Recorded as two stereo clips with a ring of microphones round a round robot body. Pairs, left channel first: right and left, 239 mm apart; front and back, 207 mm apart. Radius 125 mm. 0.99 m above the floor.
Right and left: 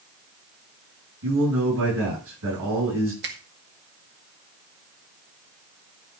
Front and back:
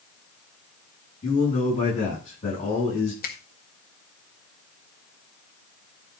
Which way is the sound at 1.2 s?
60° left.